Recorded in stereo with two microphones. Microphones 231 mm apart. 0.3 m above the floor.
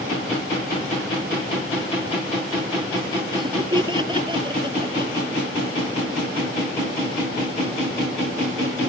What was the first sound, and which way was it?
Laughter, 20° right (ahead or behind).